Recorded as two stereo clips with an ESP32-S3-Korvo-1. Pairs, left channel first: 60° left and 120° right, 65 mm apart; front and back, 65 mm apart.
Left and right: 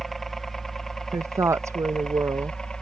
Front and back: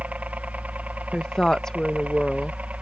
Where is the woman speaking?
80° right.